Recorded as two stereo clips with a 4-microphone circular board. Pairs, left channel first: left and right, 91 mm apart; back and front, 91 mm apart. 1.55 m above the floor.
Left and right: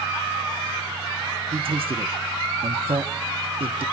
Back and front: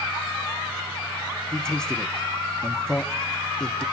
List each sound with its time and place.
1.5 s a man speaking: 95° right, 1.0 m